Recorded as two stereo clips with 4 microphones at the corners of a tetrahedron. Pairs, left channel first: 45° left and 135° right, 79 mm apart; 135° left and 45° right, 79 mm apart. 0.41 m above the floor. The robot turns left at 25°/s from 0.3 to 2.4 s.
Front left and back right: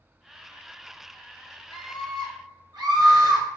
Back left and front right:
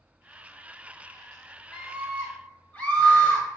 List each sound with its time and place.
1.7 s a scream: 135° right, 1.8 m; by 3.5 s 150° right, 1.8 m